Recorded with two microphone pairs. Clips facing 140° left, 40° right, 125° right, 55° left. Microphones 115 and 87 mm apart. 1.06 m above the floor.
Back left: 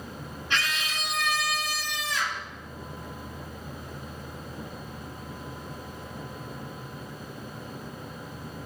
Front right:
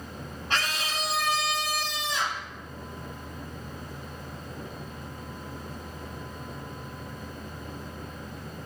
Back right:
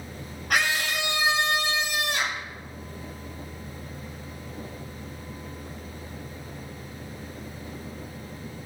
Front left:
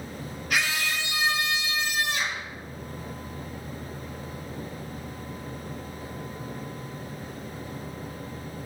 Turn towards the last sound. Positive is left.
turn(degrees=-110)